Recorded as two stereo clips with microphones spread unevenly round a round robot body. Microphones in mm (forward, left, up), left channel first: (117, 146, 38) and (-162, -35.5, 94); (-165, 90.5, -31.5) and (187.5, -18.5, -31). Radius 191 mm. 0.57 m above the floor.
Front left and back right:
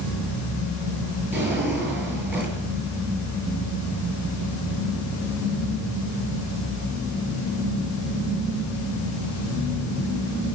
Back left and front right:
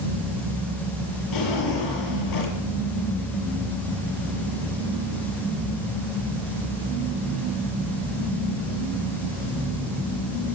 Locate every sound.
1.3 s a drawer: 130° left, 7.5 m